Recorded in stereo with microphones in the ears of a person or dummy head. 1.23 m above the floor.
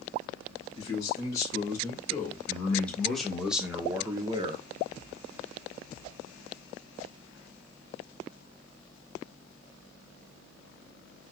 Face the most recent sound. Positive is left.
turn(degrees=-30)  # may be behind; listen again after turning